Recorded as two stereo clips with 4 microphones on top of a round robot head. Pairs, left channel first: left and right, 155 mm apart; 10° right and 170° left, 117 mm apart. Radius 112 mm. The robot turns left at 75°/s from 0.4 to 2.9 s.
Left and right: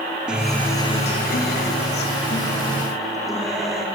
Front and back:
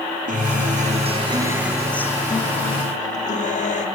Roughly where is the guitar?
Behind.